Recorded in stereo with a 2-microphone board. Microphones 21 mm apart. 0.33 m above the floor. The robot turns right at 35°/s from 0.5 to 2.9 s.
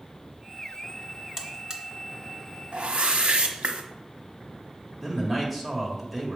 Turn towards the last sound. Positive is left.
turn(degrees=0)  # may be behind; listen again after turning